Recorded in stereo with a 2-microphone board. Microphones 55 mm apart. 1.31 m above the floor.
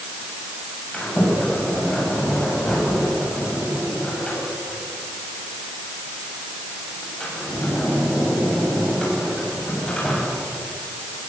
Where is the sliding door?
20° left (ahead or behind), 9 m.